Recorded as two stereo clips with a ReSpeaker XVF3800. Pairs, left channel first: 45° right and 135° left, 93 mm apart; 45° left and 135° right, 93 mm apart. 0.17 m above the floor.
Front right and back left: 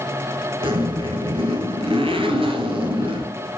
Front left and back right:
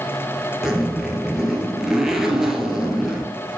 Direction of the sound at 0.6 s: 140° left.